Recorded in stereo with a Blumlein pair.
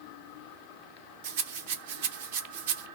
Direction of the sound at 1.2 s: 55° right.